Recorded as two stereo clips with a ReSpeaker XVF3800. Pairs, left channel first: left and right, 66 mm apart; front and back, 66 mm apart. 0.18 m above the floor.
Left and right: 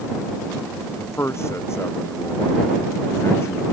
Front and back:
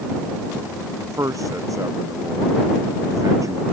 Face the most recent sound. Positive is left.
turn(degrees=140)